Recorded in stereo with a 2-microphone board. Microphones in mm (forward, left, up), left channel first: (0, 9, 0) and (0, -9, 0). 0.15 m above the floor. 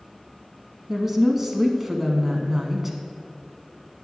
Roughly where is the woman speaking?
Centre.